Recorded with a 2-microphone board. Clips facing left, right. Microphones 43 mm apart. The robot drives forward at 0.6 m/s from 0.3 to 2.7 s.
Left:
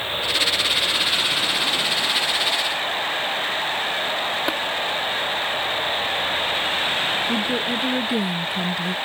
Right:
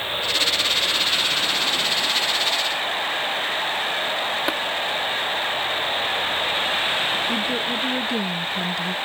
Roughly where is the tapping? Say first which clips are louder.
Even; centre.